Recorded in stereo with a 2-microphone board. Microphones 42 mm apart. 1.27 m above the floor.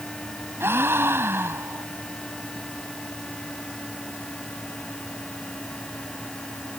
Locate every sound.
0.6 s a gasp: 70° right (ahead or behind)